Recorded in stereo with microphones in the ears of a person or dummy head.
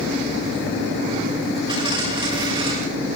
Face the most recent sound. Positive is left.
turn(degrees=-15)  # may be behind; listen again after turning